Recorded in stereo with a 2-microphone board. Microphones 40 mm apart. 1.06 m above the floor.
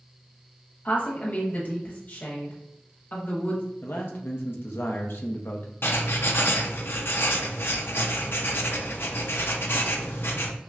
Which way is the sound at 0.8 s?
45° left (ahead or behind).